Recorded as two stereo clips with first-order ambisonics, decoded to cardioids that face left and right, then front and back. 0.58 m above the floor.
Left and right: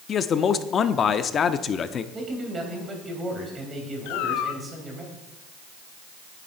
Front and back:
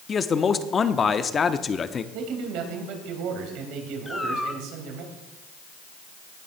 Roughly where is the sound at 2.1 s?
Behind.